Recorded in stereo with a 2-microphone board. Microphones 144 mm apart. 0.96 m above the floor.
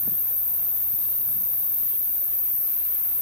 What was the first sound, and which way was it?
An insect, 5° left (ahead or behind).